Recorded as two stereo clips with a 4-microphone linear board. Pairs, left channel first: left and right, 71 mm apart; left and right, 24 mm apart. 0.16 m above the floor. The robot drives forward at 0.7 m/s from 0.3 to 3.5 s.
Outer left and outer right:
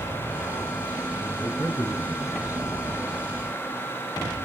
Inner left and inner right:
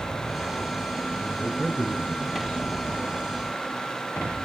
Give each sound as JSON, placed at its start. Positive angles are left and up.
{"t": 1.2, "sound": "a man speaking", "side_deg": 50, "distance_m": 6.0}